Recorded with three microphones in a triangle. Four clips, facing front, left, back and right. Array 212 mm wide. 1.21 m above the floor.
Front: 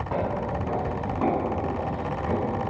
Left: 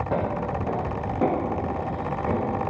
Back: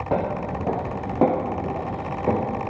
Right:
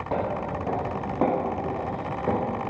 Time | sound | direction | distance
0.1 | footsteps | 165° left | 3.5 m